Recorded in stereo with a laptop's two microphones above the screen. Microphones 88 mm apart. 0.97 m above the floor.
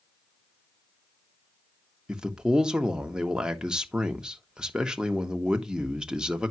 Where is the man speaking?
10° right (ahead or behind), 1.2 m.